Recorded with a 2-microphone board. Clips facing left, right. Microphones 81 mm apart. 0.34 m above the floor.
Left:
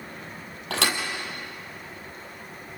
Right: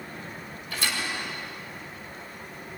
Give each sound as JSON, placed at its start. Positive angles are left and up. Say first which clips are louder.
{"t": 0.7, "sound": "a thud", "louder": "left 5 dB", "side_deg": 75, "distance_m": 3.5}